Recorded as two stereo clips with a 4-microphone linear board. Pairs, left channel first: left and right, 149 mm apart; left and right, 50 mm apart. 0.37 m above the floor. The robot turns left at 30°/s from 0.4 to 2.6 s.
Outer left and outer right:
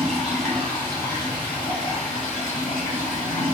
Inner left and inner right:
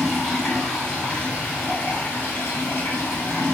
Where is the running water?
Straight behind, 1.7 m; by 3.5 s 110° left, 1.7 m.